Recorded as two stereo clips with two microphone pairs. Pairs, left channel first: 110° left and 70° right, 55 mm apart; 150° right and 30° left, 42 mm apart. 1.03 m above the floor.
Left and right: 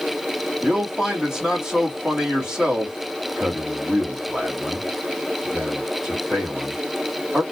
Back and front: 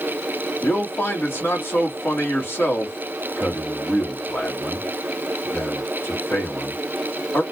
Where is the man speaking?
145° right, 3 m.